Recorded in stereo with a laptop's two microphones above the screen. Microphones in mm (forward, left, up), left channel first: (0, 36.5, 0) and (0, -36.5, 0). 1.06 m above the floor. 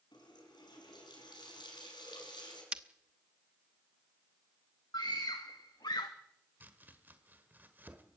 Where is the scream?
70° left (ahead or behind), 1.3 m.